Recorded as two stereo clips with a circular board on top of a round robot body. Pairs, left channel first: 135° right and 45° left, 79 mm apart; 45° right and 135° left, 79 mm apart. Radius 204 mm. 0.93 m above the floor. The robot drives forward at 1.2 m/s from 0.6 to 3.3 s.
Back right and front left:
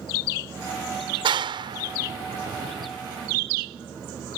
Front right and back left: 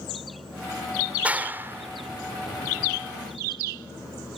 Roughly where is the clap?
Ahead left.